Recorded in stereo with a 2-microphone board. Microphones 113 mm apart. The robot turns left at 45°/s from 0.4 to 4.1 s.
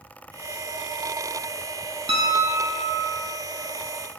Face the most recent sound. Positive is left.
turn(degrees=180)